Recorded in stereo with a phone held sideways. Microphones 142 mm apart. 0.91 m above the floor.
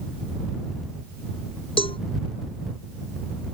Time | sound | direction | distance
1.8 | a cowbell | 40° left (ahead or behind) | ?